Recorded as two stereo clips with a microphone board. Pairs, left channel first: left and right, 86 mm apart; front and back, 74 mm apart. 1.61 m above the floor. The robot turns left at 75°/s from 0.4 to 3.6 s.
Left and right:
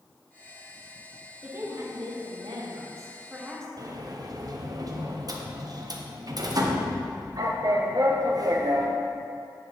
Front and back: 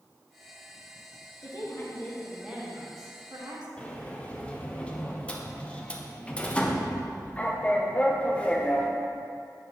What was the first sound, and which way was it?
A woman speaking, 25° right.